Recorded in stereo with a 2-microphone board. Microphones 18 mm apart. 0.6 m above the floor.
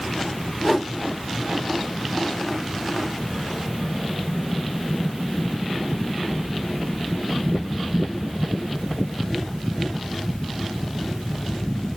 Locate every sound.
0.6 s a whoosh: 10° left (ahead or behind), 1.3 m